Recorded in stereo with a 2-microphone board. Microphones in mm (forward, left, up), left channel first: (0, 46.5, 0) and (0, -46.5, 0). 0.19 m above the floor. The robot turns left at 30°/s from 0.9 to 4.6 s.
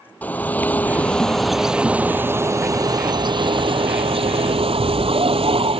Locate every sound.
0.2 s a bird: 20° left; by 5.8 s 95° right